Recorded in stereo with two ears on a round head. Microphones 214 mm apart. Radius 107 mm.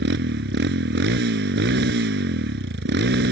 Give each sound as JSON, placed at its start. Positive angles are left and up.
{"t": 0.0, "sound": "a motorcycle", "side_deg": -45}